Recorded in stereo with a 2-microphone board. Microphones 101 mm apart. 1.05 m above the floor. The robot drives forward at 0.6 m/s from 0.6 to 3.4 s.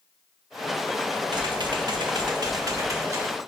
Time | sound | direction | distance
1.3 | typing on a keyboard | 45° right (ahead or behind) | 0.9 m